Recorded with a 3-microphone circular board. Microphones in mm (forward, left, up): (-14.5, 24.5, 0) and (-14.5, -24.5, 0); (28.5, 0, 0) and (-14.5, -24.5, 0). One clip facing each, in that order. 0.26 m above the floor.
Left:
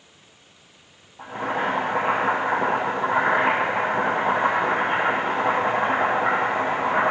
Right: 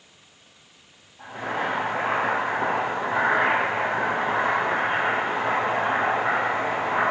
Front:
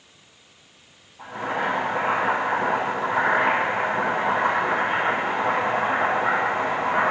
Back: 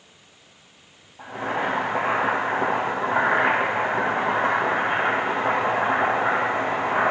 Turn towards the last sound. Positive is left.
turn(degrees=150)